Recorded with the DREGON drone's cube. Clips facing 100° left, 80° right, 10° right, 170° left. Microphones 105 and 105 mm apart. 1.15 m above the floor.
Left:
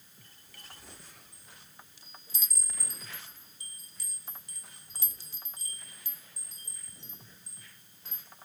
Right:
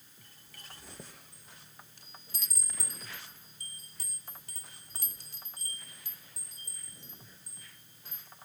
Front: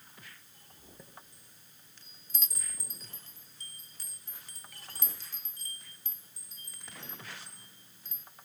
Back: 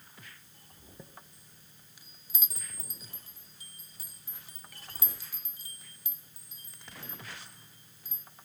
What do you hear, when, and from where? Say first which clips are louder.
1.0 s a chime: right 5 dB, back 4 dB; 110° right, 1.5 m